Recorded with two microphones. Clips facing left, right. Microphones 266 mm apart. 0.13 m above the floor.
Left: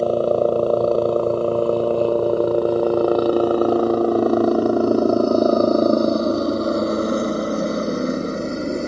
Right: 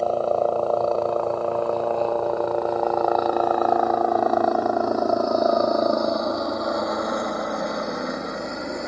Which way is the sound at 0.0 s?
40° left (ahead or behind).